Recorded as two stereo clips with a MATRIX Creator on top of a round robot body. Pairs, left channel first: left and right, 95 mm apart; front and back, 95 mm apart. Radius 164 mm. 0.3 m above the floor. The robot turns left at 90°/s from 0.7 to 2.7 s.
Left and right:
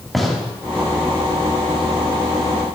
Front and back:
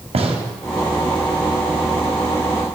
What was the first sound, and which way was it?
A gunshot, straight behind.